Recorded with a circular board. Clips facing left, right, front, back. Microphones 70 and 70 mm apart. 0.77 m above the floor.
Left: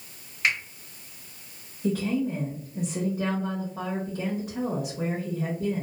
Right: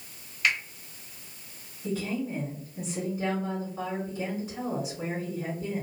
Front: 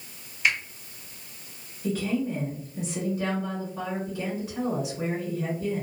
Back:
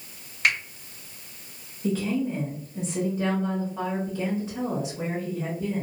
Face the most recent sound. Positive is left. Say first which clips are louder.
# left 5 dB, back 1 dB
turn(degrees=110)